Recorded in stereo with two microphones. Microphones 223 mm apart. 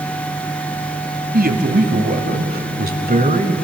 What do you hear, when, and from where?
1.3 s a man speaking: 45° right (ahead or behind), 2 m; by 3.5 s 35° right (ahead or behind), 1.5 m